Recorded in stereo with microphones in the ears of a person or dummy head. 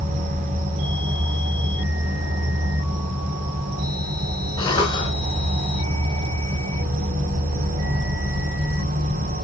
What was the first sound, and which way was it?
An insect, 40° right (ahead or behind).